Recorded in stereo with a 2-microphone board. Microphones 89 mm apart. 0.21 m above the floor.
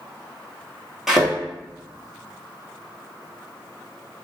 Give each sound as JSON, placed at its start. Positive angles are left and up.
{"t": 1.1, "sound": "a thud", "side_deg": -5, "distance_m": 1.0}